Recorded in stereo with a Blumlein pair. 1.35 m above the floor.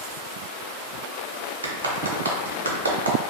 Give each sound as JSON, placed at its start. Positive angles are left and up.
{"t": 1.6, "sound": "a clap", "azimuth_deg": -70, "distance_m": 0.9}